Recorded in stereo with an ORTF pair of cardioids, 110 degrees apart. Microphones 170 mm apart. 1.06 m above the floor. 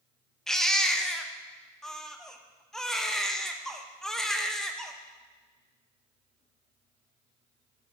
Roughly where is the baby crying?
Ahead.